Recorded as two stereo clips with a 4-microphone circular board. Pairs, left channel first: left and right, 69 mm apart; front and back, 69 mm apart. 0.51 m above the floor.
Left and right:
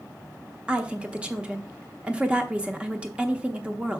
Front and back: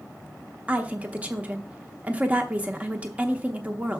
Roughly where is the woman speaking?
Behind right.